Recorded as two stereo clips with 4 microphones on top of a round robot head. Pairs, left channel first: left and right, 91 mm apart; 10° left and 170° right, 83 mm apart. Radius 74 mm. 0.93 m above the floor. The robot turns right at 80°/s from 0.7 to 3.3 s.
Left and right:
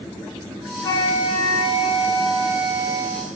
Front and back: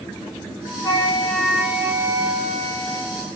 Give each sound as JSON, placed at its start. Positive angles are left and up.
{"t": 0.8, "sound": "a flute", "azimuth_deg": 50, "distance_m": 1.9}